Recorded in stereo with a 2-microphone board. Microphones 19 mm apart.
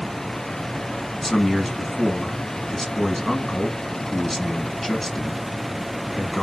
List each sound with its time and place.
1.2 s a man speaking: 15° left (ahead or behind), 1.3 m